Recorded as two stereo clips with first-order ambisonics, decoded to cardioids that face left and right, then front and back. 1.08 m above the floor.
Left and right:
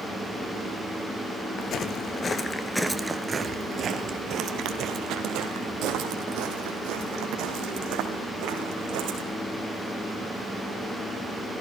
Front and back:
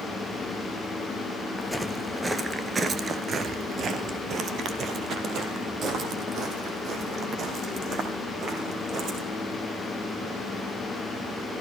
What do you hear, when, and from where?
1.6 s footsteps: 85° left, 1.2 m; by 9.2 s 120° right, 4.5 m